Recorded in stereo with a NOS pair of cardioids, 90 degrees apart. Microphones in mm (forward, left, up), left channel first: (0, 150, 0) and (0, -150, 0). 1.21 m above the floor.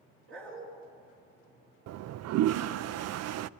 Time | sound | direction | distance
0.3 | a dog barking | 50° right | 4.5 m
1.9 | a toilet flushing | 65° right | 0.5 m